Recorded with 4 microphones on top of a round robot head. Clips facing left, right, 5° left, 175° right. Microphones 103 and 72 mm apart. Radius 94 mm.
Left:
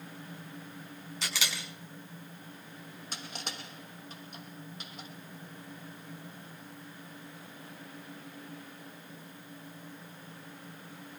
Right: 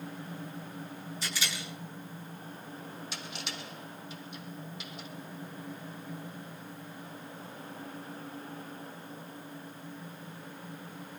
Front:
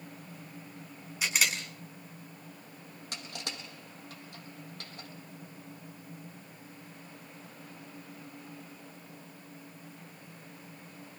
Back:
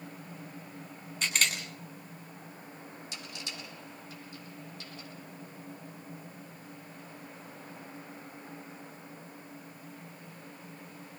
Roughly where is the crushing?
Ahead left.